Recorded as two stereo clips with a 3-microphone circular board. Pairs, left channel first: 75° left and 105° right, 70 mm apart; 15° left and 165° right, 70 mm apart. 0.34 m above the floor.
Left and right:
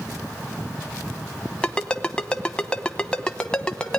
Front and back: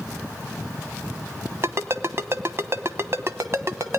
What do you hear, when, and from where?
1.6 s a ringtone: 150° left, 1.0 m